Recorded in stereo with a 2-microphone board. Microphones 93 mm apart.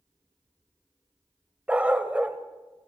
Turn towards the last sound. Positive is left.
turn(degrees=-10)  # may be behind; listen again after turning